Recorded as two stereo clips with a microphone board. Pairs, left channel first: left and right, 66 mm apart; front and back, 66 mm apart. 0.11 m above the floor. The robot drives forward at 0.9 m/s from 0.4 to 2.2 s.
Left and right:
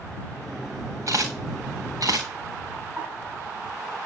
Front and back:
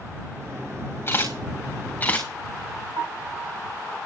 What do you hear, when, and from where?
1.1 s a camera shutter: 55° right, 4.5 m; by 2.3 s 65° right, 4 m
3.0 s a piano: 150° right, 8 m